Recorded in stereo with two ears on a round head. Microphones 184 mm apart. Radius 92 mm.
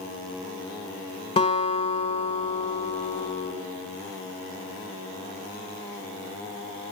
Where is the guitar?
25° left (ahead or behind), 2.0 m.